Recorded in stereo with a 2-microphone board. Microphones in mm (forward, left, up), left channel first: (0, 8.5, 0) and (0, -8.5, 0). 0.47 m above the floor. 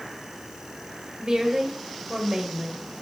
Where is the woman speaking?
40° right (ahead or behind), 1.6 m.